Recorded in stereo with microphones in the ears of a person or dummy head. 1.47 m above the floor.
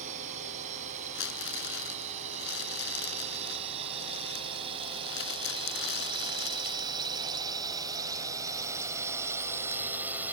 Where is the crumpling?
55° left (ahead or behind).